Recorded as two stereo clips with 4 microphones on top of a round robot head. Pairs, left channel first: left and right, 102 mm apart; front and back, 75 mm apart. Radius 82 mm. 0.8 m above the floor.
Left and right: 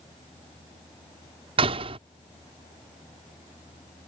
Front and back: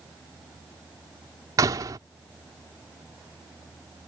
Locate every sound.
1.6 s a door slam: 130° right